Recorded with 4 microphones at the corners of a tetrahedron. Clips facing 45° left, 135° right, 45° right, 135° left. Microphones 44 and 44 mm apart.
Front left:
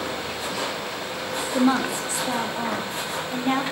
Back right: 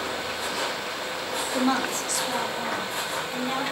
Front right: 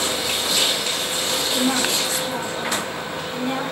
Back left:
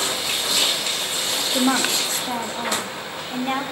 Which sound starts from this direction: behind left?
A woman speaking, at 1.5 s.